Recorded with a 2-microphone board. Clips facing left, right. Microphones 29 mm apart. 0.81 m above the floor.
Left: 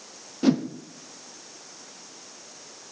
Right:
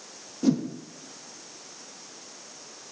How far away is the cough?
No cough in this recording.